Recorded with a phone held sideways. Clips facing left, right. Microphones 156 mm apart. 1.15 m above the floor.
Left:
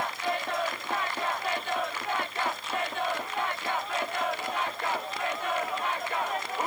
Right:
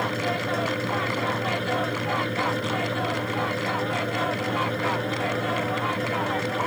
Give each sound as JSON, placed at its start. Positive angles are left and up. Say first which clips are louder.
{"t": 0.0, "sound": "a fan", "louder": "right 5 dB", "side_deg": -70}